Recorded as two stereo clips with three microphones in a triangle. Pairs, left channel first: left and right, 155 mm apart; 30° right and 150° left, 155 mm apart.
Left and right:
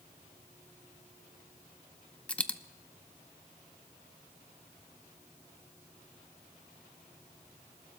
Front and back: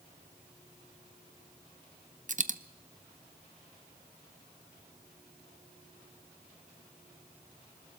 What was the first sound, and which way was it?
A dropped coin, 170° left.